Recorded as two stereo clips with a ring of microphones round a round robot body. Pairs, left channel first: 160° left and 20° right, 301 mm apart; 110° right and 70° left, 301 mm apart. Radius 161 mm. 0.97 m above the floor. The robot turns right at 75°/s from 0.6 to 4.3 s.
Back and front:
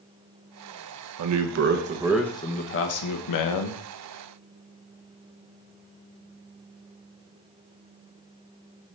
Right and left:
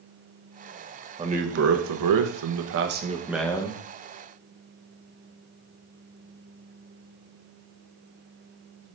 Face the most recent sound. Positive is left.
turn(degrees=-135)